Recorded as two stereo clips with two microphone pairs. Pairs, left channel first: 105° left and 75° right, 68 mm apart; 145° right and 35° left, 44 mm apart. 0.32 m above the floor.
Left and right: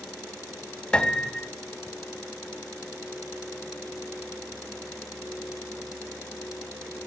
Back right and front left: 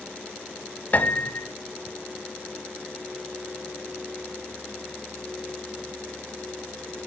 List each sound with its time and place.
0.9 s a piano: 175° left, 1.1 m